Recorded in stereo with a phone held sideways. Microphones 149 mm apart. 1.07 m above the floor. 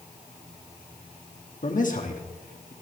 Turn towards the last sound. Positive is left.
turn(degrees=60)  # may be behind; listen again after turning